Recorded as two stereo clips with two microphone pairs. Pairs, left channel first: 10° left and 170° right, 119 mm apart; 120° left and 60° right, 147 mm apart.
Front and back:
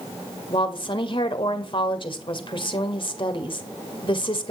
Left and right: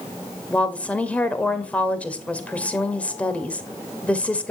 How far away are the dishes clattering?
No dishes clattering in this recording.